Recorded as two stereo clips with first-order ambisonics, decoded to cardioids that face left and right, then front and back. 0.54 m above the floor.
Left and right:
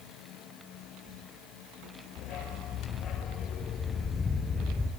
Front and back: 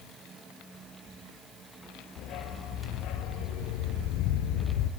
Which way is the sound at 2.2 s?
45° left.